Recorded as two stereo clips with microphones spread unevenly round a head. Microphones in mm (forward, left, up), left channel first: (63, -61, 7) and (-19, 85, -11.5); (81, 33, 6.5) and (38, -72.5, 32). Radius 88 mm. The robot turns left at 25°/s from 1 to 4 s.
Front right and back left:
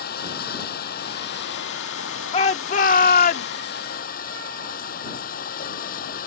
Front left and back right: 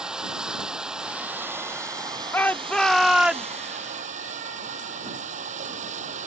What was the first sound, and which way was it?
Running water, 30° right.